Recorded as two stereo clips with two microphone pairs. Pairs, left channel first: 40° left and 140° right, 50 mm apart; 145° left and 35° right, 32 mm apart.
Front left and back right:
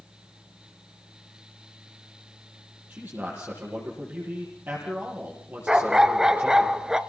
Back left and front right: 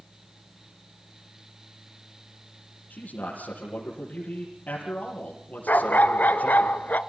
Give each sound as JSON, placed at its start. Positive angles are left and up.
{"t": 2.9, "sound": "a man speaking", "azimuth_deg": 170, "distance_m": 6.5}
{"t": 5.7, "sound": "a dog barking", "azimuth_deg": 145, "distance_m": 0.9}